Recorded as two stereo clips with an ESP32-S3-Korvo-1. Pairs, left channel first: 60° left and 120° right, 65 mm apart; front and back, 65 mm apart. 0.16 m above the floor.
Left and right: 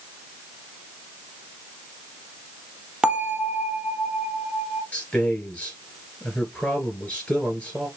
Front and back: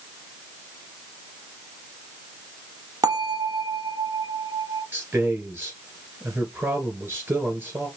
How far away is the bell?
About 0.7 m.